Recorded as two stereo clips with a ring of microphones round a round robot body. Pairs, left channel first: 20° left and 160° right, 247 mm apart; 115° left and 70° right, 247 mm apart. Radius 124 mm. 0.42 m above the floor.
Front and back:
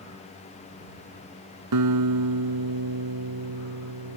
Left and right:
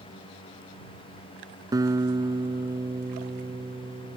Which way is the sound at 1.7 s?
145° right.